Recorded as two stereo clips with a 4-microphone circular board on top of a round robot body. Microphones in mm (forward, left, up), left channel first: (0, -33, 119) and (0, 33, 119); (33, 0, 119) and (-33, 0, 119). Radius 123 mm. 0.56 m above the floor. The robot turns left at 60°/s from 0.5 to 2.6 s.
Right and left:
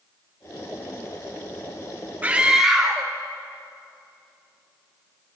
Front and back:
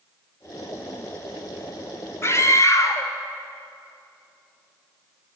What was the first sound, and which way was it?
A scream, 30° left.